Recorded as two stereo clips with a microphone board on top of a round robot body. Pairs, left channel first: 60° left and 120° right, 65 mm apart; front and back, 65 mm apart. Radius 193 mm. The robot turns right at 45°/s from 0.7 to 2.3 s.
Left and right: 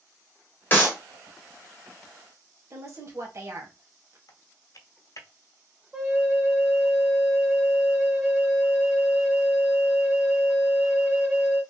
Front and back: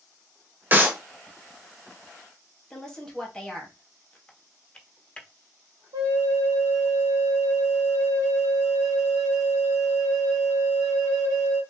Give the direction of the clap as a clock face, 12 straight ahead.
8 o'clock.